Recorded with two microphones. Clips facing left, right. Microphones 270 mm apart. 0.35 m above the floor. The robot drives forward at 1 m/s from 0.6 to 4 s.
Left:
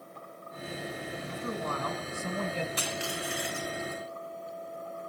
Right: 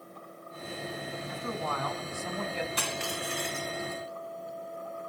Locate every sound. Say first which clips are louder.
1.3 s a man speaking: left 1 dB; 30° left (ahead or behind), 3.5 m; by 2.7 s 40° left (ahead or behind), 2.5 m
2.8 s crushing: even; 65° right (ahead or behind), 1.2 m; by 4.0 s 30° right (ahead or behind), 2 m